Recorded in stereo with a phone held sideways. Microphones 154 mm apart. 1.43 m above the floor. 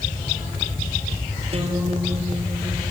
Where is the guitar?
40° right (ahead or behind), 5 m.